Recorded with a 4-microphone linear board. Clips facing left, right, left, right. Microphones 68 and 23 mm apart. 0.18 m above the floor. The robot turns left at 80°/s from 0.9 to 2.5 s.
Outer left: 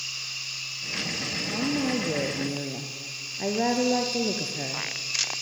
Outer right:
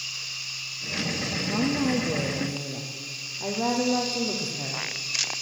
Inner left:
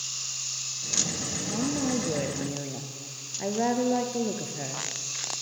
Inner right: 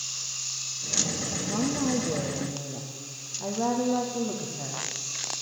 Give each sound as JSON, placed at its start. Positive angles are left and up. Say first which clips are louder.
{"t": 1.2, "sound": "a woman speaking", "louder": "outer right 2 dB, inner right 1 dB", "azimuth_deg": -155, "distance_m": 3.5}